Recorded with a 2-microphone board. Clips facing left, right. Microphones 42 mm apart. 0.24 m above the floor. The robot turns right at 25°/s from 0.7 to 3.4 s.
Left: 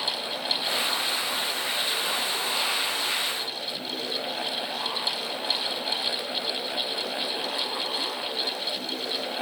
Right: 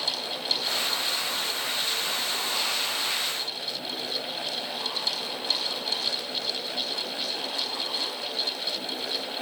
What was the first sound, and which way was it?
Only background noise.